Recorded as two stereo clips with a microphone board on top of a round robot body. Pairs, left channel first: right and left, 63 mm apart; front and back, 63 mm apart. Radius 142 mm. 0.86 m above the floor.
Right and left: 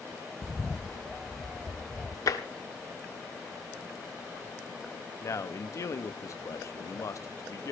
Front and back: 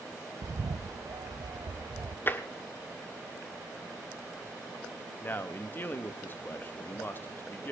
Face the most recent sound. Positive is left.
turn(degrees=-55)